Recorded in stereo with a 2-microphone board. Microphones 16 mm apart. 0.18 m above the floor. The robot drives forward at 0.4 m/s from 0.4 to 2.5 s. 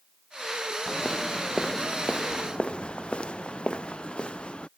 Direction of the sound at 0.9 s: 55° left (ahead or behind).